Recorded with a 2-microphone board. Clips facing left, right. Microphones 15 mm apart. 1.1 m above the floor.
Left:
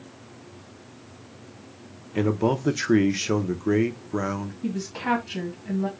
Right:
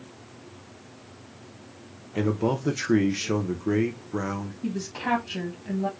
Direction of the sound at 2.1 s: 15° left (ahead or behind).